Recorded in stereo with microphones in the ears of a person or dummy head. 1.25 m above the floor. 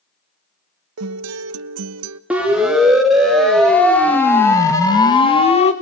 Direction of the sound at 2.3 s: 5° right (ahead or behind).